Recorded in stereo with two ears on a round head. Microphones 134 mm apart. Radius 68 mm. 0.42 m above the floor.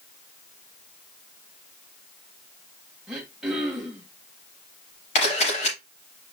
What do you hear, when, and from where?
3.1 s throat clearing: 5° right (ahead or behind), 2.5 m
5.2 s a camera shutter: 45° left (ahead or behind), 5 m